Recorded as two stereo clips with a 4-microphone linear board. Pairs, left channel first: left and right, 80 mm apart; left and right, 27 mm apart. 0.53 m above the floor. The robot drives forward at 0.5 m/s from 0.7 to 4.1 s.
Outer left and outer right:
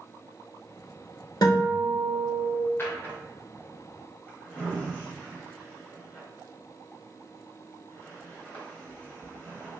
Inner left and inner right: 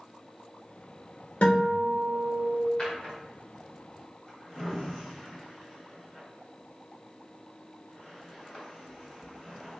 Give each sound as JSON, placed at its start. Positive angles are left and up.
{"t": 1.4, "sound": "a guitar", "side_deg": 60, "distance_m": 1.0}
{"t": 2.8, "sound": "a drawer", "side_deg": 30, "distance_m": 1.0}